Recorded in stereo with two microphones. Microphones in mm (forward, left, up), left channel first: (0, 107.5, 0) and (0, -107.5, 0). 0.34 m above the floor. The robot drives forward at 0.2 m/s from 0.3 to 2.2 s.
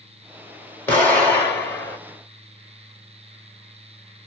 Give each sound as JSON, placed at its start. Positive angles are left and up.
{"t": 0.9, "sound": "an explosion", "side_deg": 10, "distance_m": 1.5}